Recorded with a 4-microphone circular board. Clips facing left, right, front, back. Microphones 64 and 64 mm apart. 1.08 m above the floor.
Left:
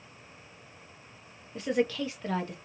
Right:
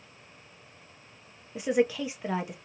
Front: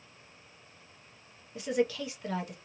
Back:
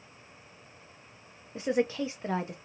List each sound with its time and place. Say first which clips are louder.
1.6 s a woman speaking: right 3 dB, back 2 dB; 155° right, 0.5 m